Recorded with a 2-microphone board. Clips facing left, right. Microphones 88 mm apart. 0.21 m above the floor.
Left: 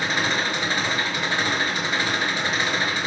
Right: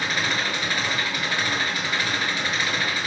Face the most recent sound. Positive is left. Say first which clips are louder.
# left 2 dB
turn(degrees=20)  # may be behind; listen again after turning